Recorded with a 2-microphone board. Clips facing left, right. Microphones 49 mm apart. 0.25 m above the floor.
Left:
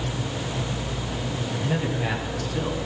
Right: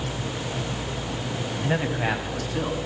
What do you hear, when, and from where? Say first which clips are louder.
1.6 s a man speaking: right 2 dB; 40° right (ahead or behind), 1.3 m; by 2.8 s 15° right (ahead or behind), 1.8 m